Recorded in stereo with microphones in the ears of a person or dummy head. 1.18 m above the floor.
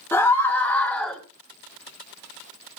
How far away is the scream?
About 3.5 m.